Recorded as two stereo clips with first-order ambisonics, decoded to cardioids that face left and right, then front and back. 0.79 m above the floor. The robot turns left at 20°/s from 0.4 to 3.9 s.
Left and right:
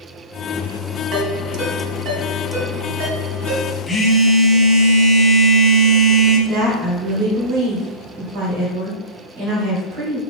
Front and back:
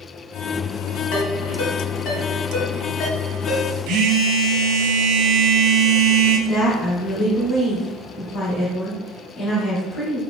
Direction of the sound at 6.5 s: 70° right.